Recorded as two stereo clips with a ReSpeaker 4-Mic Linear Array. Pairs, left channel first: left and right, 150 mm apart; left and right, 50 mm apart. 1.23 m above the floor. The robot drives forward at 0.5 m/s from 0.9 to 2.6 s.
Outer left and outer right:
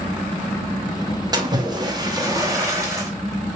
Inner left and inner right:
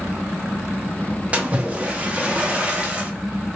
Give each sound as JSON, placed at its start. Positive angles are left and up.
{"t": 1.3, "sound": "a splash", "side_deg": -30, "distance_m": 0.7}